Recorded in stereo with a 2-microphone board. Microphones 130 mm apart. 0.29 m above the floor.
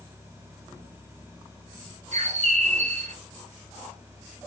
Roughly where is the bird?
Right.